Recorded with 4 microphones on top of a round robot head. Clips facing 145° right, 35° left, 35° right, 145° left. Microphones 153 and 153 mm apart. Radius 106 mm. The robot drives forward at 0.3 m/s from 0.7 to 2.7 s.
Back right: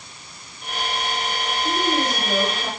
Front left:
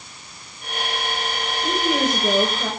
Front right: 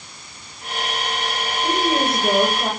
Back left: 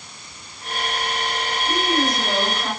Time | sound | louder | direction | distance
1.6 | a woman speaking | front left 2 dB, front right 2 dB | 25° left | 7.5 m